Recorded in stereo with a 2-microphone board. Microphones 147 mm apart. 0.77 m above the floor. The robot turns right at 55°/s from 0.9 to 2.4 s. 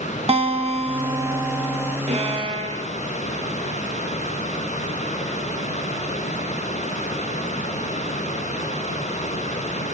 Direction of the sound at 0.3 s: 50° right.